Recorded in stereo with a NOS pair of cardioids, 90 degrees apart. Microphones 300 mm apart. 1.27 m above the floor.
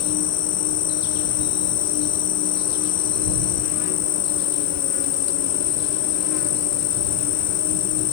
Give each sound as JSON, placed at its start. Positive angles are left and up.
{"t": 0.0, "sound": "an insect", "azimuth_deg": 60}